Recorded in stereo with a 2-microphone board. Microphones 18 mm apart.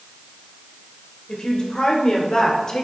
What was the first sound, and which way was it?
A woman speaking, 50° left (ahead or behind).